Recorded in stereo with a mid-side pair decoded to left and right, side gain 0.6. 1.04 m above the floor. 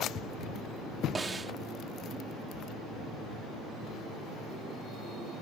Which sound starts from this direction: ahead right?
A snare drum, at 1.1 s.